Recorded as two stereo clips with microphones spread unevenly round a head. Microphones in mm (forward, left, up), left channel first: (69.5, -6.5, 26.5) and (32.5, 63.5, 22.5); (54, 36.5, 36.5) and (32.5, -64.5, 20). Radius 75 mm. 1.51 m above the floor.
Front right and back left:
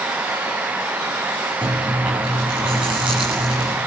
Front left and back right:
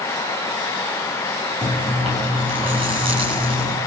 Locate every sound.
1.6 s chewing: 155° right, 8 m